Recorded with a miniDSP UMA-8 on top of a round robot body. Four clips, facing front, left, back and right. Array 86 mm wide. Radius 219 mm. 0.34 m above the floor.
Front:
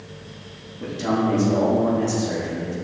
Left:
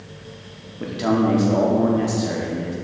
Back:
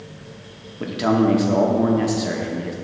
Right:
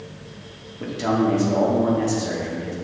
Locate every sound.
0.8 s a man speaking: 165° left, 1.3 m